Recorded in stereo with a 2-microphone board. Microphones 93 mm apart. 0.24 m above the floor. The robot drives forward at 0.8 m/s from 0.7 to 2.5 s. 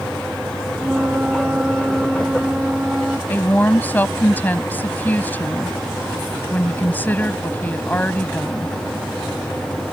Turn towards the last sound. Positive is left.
turn(degrees=20)  # may be behind; listen again after turning